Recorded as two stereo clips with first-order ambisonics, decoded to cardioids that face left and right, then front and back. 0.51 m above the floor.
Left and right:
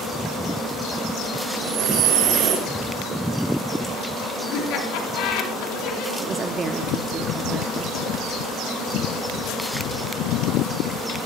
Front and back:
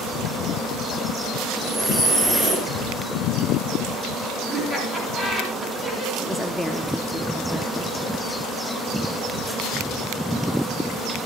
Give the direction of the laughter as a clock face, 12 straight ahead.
8 o'clock.